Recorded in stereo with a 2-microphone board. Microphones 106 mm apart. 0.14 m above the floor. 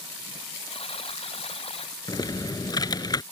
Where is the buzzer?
60° left (ahead or behind).